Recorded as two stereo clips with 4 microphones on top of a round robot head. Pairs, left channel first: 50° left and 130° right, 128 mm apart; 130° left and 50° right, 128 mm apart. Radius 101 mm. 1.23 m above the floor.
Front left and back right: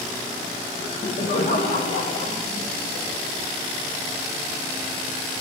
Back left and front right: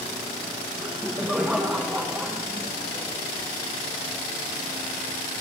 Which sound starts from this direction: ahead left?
Laughter, at 0.8 s.